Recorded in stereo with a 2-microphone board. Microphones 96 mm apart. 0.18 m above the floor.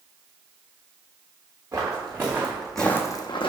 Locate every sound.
1.7 s footsteps: 30° right (ahead or behind), 1.3 m; by 3.5 s 65° left (ahead or behind), 0.6 m